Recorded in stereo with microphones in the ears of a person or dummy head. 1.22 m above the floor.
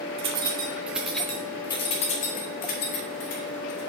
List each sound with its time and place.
0.2 s keys jangling: 30° right (ahead or behind), 1.0 m; by 3.9 s 65° left (ahead or behind), 1.7 m